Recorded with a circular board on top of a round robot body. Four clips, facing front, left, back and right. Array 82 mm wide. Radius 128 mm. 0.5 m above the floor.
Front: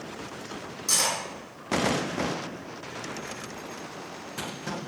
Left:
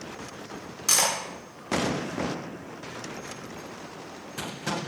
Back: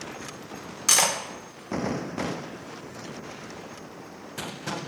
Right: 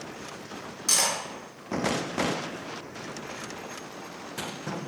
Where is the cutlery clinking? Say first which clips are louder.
Left 2 dB, back 4 dB; 165° left, 1.1 m.